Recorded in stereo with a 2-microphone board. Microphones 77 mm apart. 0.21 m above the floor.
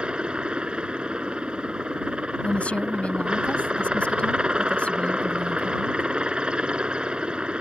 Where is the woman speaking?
15° left (ahead or behind).